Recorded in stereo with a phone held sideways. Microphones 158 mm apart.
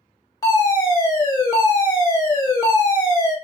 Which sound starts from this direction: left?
A fire alarm, at 0.4 s.